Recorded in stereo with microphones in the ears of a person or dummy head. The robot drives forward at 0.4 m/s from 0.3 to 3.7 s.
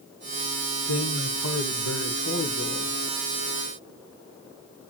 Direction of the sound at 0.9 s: 80° left.